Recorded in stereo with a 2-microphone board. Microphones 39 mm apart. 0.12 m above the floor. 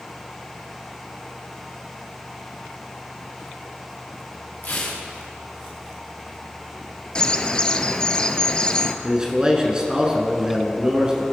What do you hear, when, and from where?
4.6 s tearing paper: 55° left (ahead or behind), 2.5 m
7.2 s a bird: 25° left (ahead or behind), 0.6 m
9.0 s a man speaking: 20° right (ahead or behind), 1.4 m